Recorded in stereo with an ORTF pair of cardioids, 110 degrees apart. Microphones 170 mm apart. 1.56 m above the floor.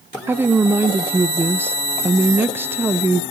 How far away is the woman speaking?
About 0.8 m.